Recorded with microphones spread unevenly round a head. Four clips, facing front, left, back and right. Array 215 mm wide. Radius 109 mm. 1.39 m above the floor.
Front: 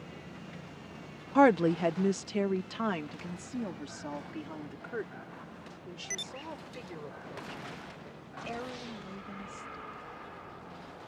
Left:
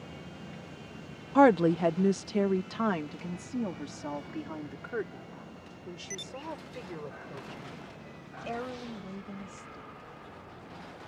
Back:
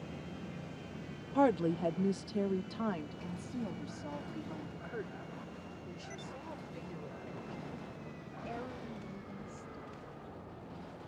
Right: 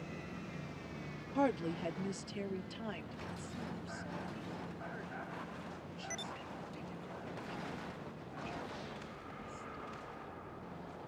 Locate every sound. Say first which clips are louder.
1.4 s a woman speaking: left 13 dB, front 6 dB; 50° left; by 9.9 s 60° left